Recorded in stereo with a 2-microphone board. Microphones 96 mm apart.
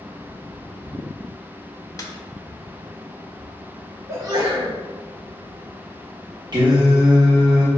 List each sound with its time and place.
2.0 s a snare drum: 35° left (ahead or behind), 0.6 m
4.1 s a sneeze: 35° right (ahead or behind), 1.5 m
6.5 s singing: 45° right (ahead or behind), 1.2 m